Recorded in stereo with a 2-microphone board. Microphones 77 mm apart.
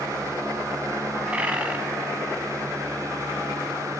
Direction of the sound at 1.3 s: 15° right (ahead or behind).